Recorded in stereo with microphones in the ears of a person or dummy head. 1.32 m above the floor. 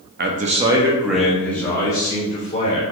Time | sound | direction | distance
0.2 | a man speaking | 45° right (ahead or behind) | 0.7 m